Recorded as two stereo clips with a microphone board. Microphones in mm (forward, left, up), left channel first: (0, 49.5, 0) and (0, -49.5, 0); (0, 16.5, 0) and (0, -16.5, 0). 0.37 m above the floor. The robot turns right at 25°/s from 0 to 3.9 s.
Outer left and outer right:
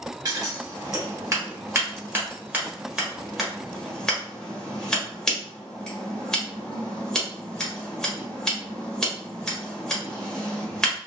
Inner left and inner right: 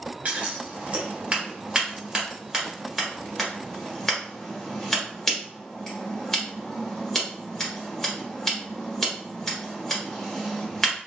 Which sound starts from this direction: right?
Scissors, at 0.2 s.